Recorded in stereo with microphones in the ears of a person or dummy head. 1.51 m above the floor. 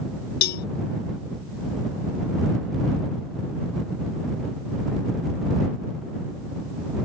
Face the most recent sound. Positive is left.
turn(degrees=55)  # may be behind; listen again after turning